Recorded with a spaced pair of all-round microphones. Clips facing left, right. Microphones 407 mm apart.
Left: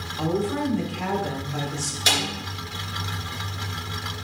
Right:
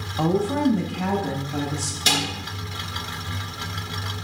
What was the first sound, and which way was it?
A woman speaking, 65° right (ahead or behind).